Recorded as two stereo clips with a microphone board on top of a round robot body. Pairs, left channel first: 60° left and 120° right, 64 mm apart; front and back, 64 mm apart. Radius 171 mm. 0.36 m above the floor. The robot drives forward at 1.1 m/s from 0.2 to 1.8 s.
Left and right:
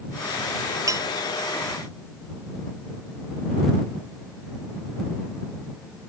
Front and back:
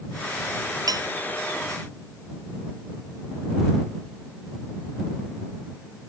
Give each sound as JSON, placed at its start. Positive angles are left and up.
{"t": 0.9, "sound": "dishes clattering", "azimuth_deg": -155}